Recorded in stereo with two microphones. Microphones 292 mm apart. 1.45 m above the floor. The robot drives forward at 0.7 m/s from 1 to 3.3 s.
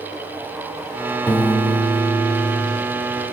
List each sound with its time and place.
1.3 s a piano: 10° left (ahead or behind), 4 m